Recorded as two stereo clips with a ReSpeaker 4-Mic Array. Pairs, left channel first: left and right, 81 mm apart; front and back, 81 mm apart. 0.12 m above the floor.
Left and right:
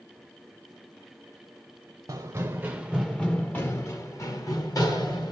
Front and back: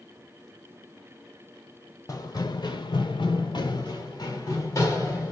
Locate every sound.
2.1 s running footsteps: 45° right, 0.6 m; by 5.3 s 55° left, 1.5 m